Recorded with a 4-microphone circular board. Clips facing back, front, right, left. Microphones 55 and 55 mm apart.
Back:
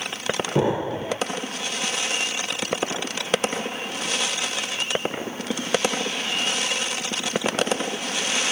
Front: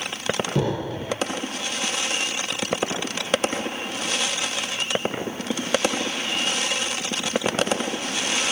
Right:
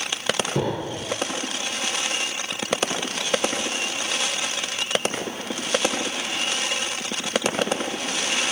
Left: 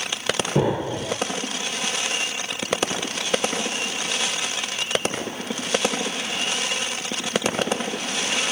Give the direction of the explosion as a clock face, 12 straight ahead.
7 o'clock.